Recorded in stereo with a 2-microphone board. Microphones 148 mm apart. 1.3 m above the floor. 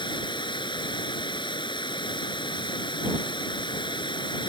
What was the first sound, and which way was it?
Running water, 30° left (ahead or behind).